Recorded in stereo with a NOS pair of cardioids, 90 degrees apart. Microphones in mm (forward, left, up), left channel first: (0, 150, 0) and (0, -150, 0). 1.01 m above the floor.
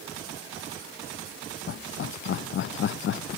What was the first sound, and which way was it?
Laughter, 45° left.